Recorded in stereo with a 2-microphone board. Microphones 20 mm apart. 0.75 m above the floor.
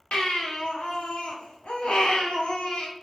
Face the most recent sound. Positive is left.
turn(degrees=65)  # may be behind; listen again after turning